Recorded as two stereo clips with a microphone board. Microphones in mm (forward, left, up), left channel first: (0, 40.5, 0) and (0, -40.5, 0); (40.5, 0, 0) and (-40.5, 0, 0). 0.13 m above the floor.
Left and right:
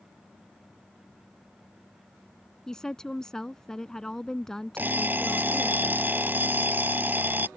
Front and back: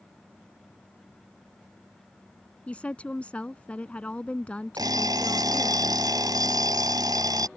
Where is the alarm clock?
155° right.